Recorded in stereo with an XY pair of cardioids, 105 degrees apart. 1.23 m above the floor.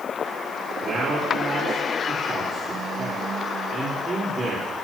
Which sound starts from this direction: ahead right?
A man speaking, at 0.8 s.